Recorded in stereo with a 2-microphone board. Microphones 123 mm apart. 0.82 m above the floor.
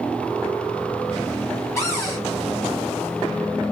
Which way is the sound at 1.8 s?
25° left (ahead or behind).